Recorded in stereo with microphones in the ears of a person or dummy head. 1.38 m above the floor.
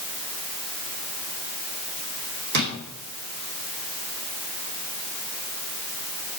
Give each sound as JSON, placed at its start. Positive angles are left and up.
{"t": 2.5, "sound": "a drawer", "side_deg": -55, "distance_m": 2.5}